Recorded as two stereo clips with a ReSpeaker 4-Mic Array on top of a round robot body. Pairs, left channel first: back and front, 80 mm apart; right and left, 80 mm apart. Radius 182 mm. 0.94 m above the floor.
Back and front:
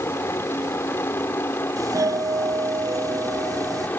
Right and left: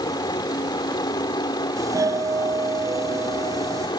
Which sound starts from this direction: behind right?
A helicopter, at 0.0 s.